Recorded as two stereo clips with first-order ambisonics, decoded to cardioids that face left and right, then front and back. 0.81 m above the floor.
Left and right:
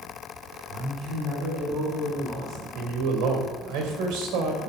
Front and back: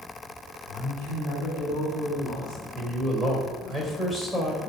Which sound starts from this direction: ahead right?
A man speaking, at 0.7 s.